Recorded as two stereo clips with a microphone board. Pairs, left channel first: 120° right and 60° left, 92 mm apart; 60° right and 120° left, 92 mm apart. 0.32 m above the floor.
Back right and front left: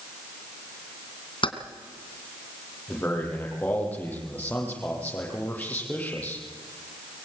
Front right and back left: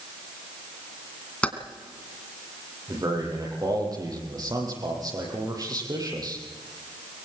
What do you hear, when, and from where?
1.4 s keys jangling: 135° right, 2.5 m
2.9 s a man speaking: 165° left, 9.5 m